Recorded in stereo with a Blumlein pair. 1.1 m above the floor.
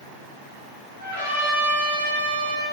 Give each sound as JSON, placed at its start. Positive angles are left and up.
{"t": 1.0, "sound": "a trumpet", "azimuth_deg": 65, "distance_m": 1.4}